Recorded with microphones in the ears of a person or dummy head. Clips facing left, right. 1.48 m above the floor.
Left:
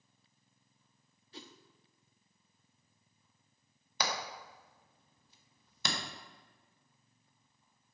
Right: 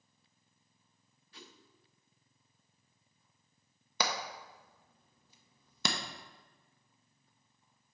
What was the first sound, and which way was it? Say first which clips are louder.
A whoosh: left 5 dB; 30° left (ahead or behind).